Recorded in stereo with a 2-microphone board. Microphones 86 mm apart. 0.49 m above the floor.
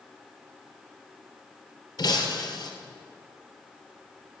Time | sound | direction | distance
2.0 | breaking glass | 55° left (ahead or behind) | 2.5 m